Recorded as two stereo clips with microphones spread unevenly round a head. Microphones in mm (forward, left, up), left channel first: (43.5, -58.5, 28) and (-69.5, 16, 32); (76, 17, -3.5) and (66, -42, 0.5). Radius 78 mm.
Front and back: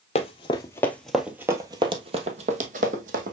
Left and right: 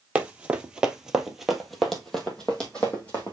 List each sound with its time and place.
0.1 s running footsteps: 45° right, 1.1 m; by 3.3 s 160° left, 1.8 m